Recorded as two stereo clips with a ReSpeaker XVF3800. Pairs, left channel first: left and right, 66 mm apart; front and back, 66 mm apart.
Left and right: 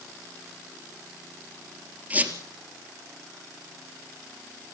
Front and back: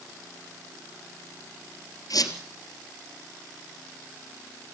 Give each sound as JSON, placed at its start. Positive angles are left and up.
{"t": 2.1, "sound": "a squeak", "azimuth_deg": -25, "distance_m": 3.5}